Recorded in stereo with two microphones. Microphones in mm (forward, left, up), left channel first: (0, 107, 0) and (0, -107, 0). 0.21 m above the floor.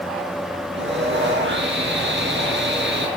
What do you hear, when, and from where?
0.8 s sawing: 55° right (ahead or behind), 3.5 m